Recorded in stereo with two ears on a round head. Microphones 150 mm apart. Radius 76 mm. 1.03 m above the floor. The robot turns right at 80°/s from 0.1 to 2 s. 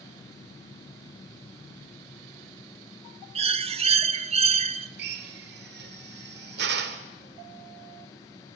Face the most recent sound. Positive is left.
turn(degrees=-70)  # may be behind; listen again after turning